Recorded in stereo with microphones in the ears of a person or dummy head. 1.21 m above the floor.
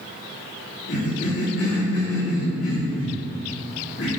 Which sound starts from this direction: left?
A cough, at 0.9 s.